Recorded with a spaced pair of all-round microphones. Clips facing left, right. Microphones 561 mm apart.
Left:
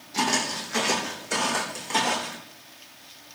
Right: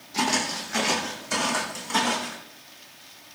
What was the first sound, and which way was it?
Footsteps, centre (ahead or behind).